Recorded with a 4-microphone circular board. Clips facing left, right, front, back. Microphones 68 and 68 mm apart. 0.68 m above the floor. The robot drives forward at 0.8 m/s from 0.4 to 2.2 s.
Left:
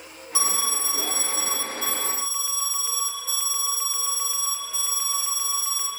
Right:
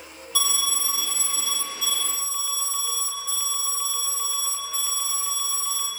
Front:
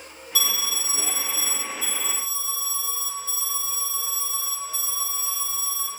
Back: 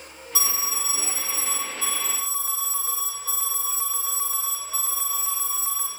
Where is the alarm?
140° left, 1.0 m; by 5.9 s 170° left, 2 m.